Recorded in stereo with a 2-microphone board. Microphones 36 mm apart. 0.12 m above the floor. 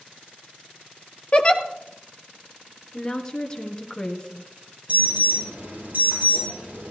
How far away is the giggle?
About 1.1 m.